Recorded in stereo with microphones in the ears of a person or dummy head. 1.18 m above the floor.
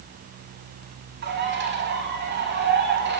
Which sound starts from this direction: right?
A bird, at 1.2 s.